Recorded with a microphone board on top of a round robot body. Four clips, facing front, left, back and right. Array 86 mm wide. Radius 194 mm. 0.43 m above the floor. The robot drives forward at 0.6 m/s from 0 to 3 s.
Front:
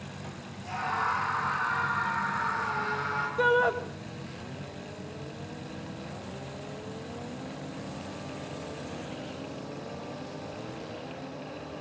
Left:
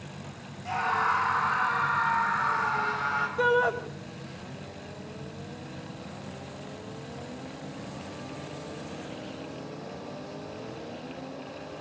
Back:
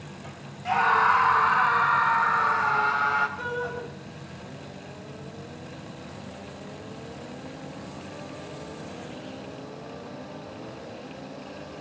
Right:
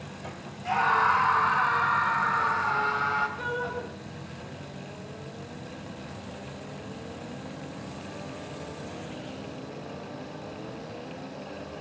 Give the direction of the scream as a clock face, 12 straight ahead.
5 o'clock.